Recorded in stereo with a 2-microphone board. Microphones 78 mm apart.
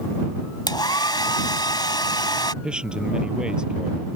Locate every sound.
0.7 s a hair dryer: 70° left (ahead or behind)
2.6 s a man speaking: 10° right (ahead or behind)